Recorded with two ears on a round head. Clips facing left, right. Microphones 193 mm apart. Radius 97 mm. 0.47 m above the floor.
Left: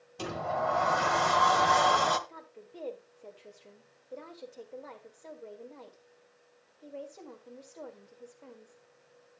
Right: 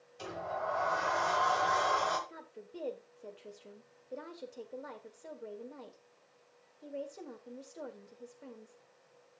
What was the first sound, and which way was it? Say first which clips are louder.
A sliding door: left 6 dB; 65° left (ahead or behind).